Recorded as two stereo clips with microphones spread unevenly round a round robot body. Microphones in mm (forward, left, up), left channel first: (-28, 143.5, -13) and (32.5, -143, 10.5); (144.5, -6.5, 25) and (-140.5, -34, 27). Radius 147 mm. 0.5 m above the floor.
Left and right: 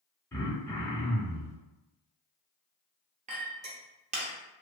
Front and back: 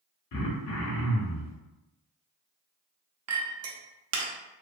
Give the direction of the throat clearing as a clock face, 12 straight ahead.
11 o'clock.